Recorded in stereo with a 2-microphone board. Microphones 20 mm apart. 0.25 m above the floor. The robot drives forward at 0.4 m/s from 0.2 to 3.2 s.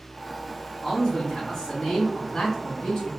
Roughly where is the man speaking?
Left.